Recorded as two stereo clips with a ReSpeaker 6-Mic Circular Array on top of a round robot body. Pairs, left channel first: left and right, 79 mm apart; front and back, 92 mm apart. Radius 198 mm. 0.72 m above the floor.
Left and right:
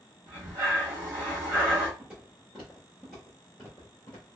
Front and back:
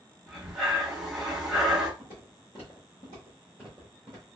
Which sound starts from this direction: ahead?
Footsteps, at 2.0 s.